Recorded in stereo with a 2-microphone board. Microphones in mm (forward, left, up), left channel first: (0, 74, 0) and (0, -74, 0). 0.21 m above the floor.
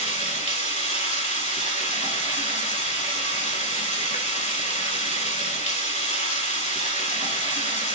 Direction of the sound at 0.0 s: 55° left (ahead or behind).